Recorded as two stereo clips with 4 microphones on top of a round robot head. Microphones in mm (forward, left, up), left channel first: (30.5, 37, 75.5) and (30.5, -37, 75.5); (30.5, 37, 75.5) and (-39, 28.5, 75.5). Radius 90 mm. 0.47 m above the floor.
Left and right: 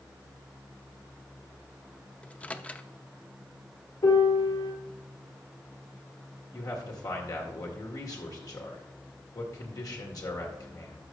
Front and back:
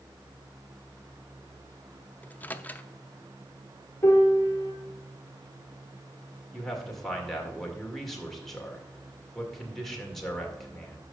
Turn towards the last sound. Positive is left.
turn(degrees=90)